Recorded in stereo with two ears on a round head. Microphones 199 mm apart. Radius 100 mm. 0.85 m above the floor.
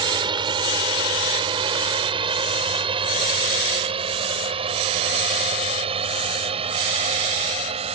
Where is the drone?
20° right (ahead or behind); by 8.0 s 25° right (ahead or behind).